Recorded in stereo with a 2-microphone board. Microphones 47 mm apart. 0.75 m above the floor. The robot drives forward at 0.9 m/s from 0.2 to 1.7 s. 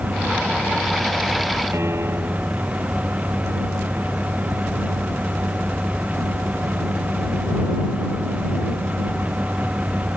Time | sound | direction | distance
1.7 | a piano | 65° right (ahead or behind) | ?